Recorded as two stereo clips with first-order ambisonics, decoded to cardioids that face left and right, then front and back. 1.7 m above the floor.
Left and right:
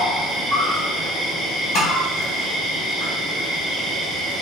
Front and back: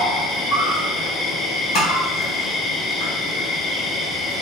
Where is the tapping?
35° left, 1.1 m.